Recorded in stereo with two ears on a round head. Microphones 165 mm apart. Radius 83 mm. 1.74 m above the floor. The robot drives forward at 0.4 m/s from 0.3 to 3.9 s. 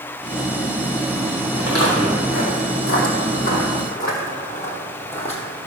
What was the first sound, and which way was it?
Footsteps, 60° left (ahead or behind).